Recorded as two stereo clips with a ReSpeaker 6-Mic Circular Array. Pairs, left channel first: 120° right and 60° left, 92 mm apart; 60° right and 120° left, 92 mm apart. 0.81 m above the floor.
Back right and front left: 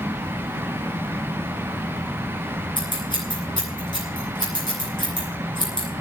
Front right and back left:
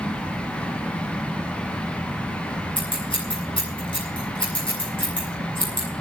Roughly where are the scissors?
Right.